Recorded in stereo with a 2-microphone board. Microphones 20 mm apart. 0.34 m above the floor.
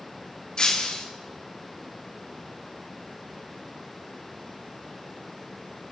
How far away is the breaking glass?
About 3.5 m.